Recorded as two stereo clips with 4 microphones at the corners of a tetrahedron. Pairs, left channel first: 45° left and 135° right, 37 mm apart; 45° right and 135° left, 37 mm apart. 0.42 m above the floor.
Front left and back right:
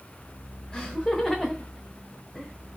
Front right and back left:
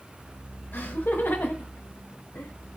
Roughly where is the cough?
I don't hear a cough.